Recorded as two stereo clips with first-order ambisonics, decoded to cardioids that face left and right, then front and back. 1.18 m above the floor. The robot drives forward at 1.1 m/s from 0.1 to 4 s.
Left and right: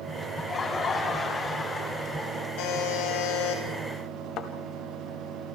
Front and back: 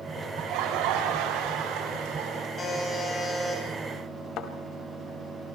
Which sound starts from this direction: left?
A buzzer, at 2.6 s.